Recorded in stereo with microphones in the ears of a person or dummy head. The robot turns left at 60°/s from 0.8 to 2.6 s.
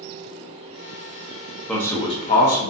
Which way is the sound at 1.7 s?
170° left.